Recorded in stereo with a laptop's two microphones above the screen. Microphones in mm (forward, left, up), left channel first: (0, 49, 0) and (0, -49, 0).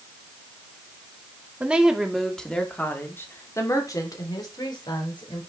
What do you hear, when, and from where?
1.6 s a woman speaking: 10° right (ahead or behind), 2.5 m; by 5.5 s 50° left (ahead or behind), 4.5 m